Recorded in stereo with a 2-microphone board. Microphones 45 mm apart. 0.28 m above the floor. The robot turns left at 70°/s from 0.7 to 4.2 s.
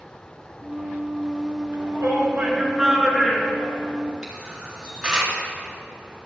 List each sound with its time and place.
1.7 s a shout: 90° right, 4.5 m; by 4.0 s 110° left, 4.5 m
4.2 s a camera shutter: 10° right (ahead or behind), 3.5 m